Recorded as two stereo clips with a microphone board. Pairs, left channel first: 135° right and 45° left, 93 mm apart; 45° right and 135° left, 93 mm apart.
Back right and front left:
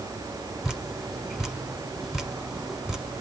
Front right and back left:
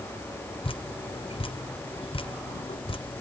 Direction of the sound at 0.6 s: 40° right.